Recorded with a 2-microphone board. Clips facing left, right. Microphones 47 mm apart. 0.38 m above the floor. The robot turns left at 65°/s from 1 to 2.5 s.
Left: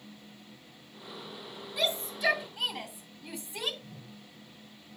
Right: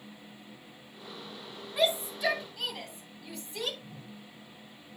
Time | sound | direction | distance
1.8 | a shout | 25° right (ahead or behind) | 3 m
3.8 | a whoosh | 25° right (ahead or behind) | 4 m